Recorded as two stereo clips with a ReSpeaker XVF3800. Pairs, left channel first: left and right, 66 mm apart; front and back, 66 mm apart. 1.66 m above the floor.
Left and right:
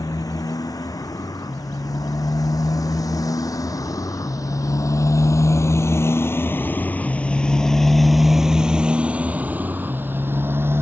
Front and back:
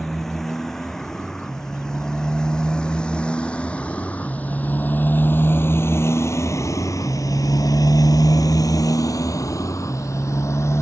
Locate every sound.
0.0 s a motorcycle: 85° left; by 10.8 s 40° right